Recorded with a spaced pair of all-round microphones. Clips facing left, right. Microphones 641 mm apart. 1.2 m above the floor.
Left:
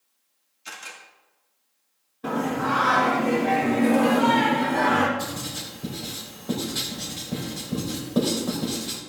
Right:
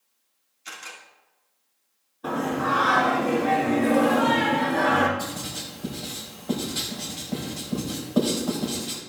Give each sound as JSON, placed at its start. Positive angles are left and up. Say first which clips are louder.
{"t": 0.7, "sound": "a camera shutter", "louder": "even", "side_deg": 60, "distance_m": 2.5}
{"t": 2.2, "sound": "singing", "louder": "left 1 dB", "side_deg": 50, "distance_m": 1.8}
{"t": 5.2, "sound": "writing", "louder": "left 1 dB", "side_deg": 45, "distance_m": 3.5}